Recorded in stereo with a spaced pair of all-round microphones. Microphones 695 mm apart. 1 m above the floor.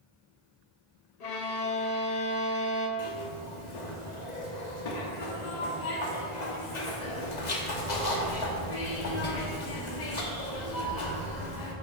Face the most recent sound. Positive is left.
turn(degrees=75)  # may be behind; listen again after turning